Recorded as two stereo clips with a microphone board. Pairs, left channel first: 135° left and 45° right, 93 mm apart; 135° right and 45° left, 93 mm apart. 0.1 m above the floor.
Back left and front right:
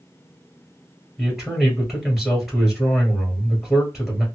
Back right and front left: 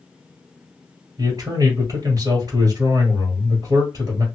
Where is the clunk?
No clunk in this recording.